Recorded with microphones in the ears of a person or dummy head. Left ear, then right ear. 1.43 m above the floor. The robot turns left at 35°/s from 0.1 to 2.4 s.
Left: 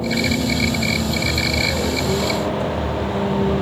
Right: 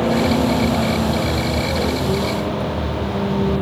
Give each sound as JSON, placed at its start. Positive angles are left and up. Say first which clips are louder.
{"t": 0.0, "sound": "a vehicle", "louder": "right 3 dB", "side_deg": -60}